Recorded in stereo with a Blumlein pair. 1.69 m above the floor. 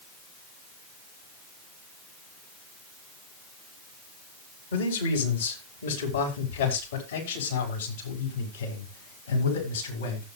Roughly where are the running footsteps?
No running footsteps in this recording.